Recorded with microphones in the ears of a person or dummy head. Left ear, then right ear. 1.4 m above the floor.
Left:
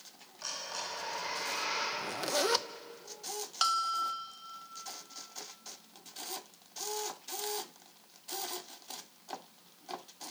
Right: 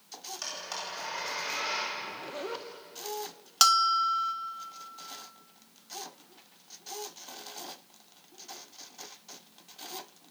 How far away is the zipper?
About 0.8 m.